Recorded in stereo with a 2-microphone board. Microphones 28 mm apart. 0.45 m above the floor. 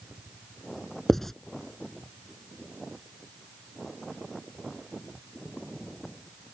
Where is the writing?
10° left (ahead or behind).